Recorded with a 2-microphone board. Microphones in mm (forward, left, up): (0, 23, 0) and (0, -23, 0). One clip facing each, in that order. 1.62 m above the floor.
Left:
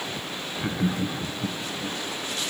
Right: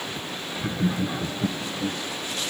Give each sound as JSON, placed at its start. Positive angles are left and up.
{"t": 0.6, "sound": "laughter", "side_deg": 15, "distance_m": 0.6}